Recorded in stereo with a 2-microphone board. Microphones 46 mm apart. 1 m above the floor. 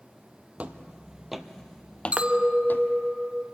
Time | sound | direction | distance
0.6 | footsteps | 30° right (ahead or behind) | 1.1 m
2.1 | a clink | 25° right (ahead or behind) | 0.8 m